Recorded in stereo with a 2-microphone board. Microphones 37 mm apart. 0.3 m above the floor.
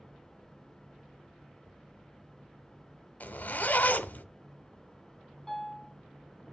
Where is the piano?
10° left (ahead or behind), 2 m.